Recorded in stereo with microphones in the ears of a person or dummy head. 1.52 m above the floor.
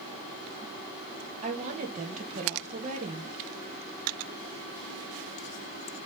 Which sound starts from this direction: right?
A woman speaking, at 1.4 s.